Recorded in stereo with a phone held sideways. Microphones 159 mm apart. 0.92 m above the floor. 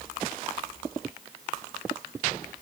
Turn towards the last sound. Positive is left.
No sound to turn to.